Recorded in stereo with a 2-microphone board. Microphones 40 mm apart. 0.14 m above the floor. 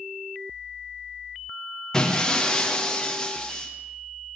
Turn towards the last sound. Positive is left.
turn(degrees=20)  # may be behind; listen again after turning